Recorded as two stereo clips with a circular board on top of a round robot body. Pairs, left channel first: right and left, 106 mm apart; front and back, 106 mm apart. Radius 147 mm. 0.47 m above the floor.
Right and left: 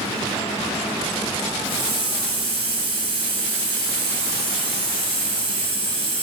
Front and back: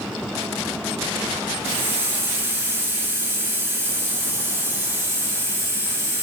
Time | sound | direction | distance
1.6 | a hiss | 115° left | 7.5 m